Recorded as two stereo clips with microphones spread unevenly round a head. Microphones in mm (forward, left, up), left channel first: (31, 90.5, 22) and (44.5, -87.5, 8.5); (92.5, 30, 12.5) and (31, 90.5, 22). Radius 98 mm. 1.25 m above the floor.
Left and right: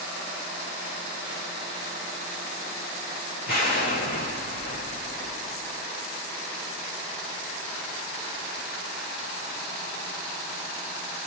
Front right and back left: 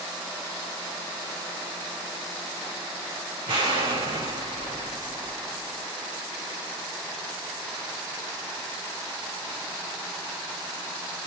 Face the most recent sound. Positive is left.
turn(degrees=140)